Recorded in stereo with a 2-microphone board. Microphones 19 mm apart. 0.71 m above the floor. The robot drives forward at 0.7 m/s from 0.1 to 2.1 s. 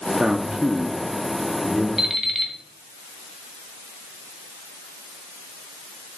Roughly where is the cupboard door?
I don't hear a cupboard door.